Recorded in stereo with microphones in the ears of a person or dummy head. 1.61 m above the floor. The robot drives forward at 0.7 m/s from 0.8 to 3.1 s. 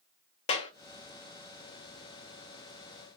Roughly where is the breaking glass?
No breaking glass in this recording.